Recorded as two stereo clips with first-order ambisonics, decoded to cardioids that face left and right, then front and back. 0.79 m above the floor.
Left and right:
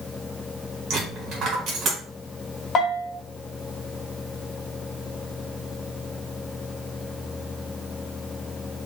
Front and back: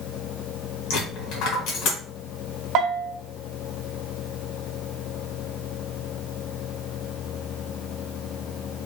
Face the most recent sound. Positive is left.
turn(degrees=145)